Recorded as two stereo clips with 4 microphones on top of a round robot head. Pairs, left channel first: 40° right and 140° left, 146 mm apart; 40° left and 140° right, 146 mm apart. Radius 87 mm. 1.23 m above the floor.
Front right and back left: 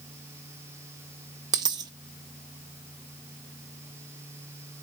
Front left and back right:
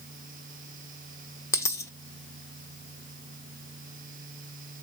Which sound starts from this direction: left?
A dropped coin, at 1.5 s.